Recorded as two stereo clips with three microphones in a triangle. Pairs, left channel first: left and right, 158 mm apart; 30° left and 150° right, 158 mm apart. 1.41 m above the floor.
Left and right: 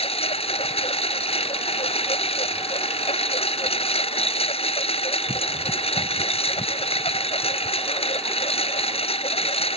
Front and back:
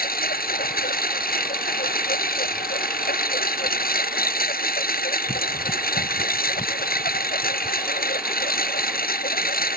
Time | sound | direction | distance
0.0 | a lawn mower | 40° left | ?